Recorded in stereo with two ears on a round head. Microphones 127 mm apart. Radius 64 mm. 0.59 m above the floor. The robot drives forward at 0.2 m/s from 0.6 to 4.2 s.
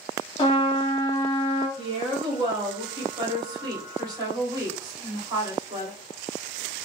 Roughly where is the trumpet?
Left.